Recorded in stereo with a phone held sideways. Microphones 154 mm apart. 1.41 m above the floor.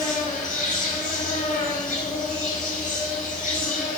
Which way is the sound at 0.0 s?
65° left (ahead or behind).